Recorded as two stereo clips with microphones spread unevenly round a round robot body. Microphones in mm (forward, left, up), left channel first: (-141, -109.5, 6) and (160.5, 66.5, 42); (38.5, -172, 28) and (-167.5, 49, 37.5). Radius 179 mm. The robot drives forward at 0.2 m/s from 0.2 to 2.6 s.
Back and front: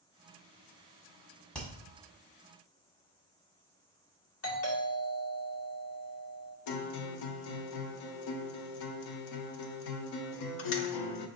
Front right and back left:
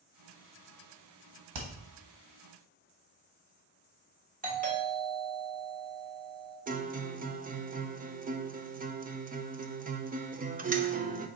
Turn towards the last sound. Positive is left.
turn(degrees=-160)